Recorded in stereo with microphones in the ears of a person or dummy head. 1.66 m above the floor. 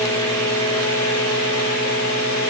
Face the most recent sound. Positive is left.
No sound to turn to.